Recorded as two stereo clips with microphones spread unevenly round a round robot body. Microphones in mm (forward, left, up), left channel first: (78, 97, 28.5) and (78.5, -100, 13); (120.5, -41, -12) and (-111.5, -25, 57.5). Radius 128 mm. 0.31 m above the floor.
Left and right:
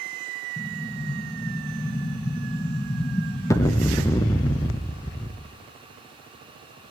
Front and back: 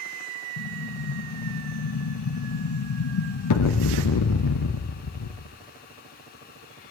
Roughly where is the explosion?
Ahead.